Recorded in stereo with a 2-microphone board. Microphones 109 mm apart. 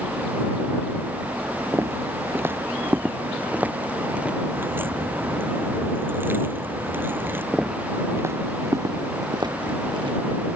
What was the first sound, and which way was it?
Footsteps, 25° right (ahead or behind).